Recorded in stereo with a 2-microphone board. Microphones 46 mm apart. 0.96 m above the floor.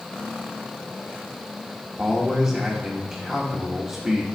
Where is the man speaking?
25° right (ahead or behind), 1.5 m.